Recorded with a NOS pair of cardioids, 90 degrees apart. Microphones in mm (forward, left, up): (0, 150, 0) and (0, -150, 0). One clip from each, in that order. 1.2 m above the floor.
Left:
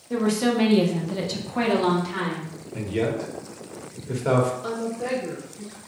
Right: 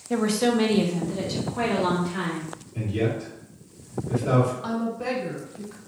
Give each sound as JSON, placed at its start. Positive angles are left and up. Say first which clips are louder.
{"t": 0.1, "sound": "a woman speaking", "louder": "even", "azimuth_deg": -25, "distance_m": 0.8}
{"t": 2.7, "sound": "a man speaking", "louder": "left 2 dB", "azimuth_deg": 55, "distance_m": 1.2}
{"t": 4.6, "sound": "a woman speaking", "louder": "even", "azimuth_deg": -15, "distance_m": 1.1}